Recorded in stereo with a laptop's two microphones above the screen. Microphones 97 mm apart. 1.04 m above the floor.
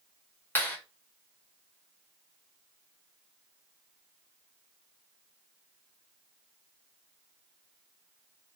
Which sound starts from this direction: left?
A clap, at 0.6 s.